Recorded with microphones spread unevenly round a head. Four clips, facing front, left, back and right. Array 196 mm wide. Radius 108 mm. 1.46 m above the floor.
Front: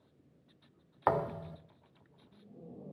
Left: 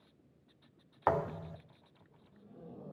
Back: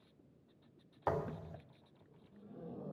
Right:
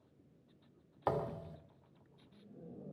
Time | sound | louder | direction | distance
1.1 | a thud | left 5 dB, front 7 dB | 15° left | 1.1 m